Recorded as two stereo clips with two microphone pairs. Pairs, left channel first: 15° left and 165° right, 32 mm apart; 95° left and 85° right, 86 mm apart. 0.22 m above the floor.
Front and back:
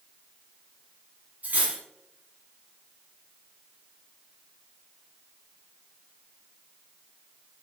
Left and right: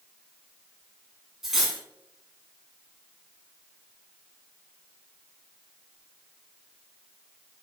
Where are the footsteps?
No footsteps in this recording.